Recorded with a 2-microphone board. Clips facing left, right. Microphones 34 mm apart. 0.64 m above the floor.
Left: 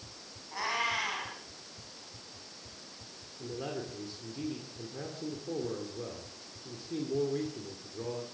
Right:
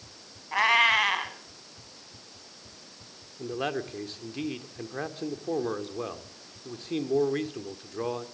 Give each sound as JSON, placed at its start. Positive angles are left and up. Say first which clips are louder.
{"t": 0.5, "sound": "a cat meowing", "louder": "right 11 dB", "side_deg": -60, "distance_m": 3.0}
{"t": 3.4, "sound": "a man speaking", "louder": "right 7 dB", "side_deg": -60, "distance_m": 2.0}